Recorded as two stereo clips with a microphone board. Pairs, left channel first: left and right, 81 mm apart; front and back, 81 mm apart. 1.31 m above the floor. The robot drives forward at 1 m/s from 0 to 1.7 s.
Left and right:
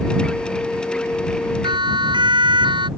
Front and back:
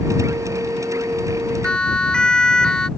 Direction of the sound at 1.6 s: 80° right.